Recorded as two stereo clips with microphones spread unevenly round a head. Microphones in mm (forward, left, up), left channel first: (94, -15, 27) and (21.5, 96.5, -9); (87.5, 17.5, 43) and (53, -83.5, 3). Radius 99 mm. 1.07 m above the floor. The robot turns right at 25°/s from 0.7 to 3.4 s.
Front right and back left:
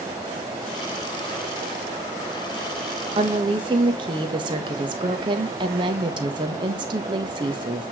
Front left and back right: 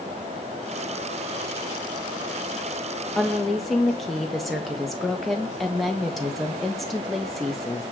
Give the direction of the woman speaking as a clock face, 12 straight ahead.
6 o'clock.